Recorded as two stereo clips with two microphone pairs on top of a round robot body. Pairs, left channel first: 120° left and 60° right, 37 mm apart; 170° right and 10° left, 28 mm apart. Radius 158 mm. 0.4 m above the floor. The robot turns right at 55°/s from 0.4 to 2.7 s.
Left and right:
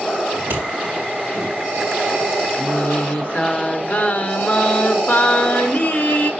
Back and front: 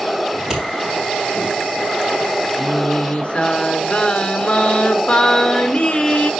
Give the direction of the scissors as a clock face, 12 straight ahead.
2 o'clock.